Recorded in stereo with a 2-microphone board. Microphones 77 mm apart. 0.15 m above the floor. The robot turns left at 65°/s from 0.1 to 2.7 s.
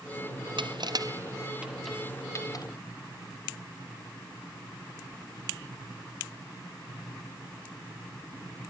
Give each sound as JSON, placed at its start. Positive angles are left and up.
{"t": 0.6, "sound": "crushing", "side_deg": -80}